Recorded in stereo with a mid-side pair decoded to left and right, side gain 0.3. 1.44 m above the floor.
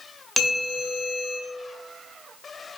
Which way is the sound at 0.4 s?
20° left.